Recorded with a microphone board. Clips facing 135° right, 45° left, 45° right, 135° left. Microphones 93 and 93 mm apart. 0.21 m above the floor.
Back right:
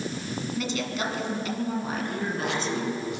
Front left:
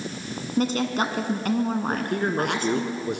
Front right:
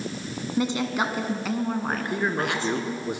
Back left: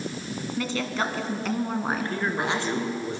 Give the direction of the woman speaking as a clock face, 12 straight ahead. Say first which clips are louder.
Front left 8 dB, front right 4 dB; 11 o'clock.